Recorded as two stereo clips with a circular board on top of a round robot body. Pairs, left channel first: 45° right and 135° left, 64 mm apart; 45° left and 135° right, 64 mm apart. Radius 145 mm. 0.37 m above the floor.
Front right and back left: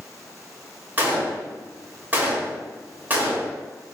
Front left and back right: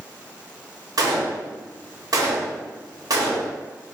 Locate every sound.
1.0 s a gunshot: 160° right, 1.0 m